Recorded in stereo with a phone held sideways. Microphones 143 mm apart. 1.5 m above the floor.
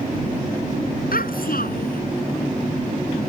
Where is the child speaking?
80° left.